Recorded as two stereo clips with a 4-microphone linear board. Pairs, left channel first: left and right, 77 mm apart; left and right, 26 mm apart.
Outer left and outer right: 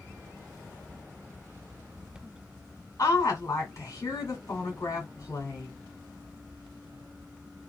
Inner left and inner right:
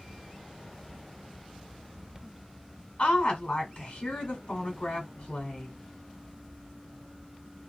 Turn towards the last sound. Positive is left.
turn(degrees=40)  # may be behind; listen again after turning